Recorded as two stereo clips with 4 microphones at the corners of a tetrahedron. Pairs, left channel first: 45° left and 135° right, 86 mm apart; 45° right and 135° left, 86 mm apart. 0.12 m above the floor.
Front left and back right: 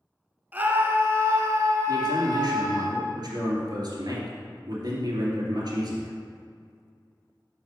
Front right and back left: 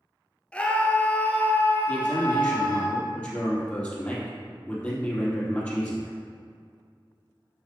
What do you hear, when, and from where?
0.5 s a scream: 100° right, 1.2 m
1.9 s a man speaking: 115° right, 2.5 m